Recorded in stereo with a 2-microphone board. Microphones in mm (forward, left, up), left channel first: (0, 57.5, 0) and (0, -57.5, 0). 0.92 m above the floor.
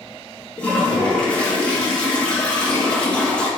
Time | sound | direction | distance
0.6 | a toilet flushing | 10° left (ahead or behind) | 0.8 m